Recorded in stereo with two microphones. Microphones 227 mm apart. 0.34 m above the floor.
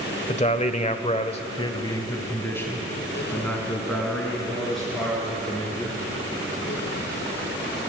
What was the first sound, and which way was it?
A man speaking, 25° left (ahead or behind).